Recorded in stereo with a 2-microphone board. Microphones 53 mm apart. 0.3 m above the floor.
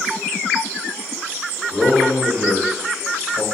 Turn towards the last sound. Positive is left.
turn(degrees=-25)  # may be behind; listen again after turning